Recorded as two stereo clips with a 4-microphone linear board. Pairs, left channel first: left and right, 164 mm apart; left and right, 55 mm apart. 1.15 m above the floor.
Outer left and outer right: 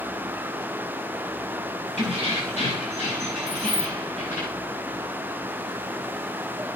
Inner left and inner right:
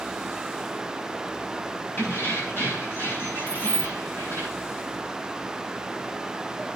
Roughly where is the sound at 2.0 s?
Left.